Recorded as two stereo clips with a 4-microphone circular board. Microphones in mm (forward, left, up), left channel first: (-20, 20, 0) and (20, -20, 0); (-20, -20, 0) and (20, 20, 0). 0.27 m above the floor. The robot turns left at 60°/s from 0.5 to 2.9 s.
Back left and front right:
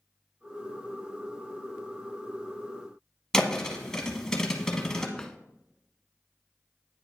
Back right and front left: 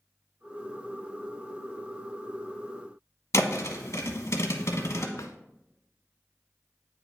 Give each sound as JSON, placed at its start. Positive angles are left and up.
{"t": 3.3, "sound": "a thud", "azimuth_deg": -145, "distance_m": 0.9}
{"t": 5.2, "sound": "a drawer", "azimuth_deg": -145, "distance_m": 0.6}